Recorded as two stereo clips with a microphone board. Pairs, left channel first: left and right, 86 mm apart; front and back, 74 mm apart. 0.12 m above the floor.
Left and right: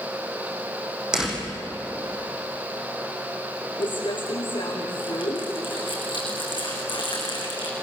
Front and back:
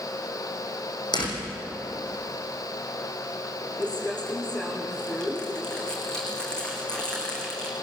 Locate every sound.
1.1 s a door slam: 10° right, 4.5 m
3.8 s crumpling: 80° left, 5.5 m